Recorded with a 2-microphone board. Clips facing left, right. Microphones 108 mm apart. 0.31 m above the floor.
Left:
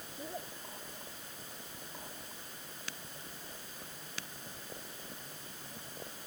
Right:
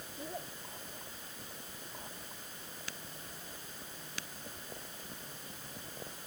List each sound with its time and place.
Only background noise.